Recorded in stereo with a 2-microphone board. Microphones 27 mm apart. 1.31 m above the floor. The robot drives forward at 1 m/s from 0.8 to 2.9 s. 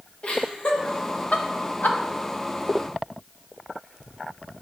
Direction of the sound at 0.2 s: 40° left (ahead or behind).